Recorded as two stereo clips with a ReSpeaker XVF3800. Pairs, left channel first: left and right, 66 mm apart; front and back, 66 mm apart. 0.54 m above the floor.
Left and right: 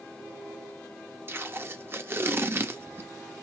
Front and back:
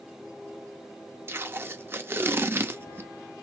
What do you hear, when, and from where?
1.3 s tape being pulled: 130° right, 0.6 m